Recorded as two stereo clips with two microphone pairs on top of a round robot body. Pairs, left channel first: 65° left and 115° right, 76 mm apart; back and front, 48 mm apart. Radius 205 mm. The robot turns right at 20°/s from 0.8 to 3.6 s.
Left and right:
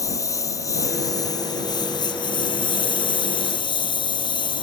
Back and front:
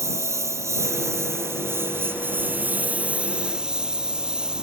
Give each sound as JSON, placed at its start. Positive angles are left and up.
{"t": 0.0, "sound": "a lawn mower", "azimuth_deg": 15}